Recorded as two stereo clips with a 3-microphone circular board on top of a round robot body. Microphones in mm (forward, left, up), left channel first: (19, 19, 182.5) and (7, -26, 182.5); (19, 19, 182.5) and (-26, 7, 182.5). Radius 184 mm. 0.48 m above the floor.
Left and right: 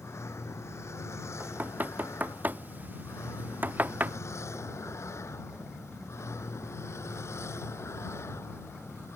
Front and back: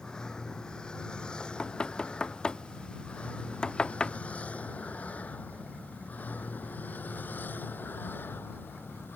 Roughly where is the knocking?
Ahead right.